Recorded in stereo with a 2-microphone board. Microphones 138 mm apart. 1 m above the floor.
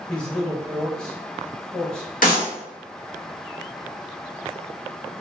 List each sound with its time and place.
0.1 s a man speaking: 5° left (ahead or behind), 1.1 m
2.2 s a clap: 75° left (ahead or behind), 1.8 m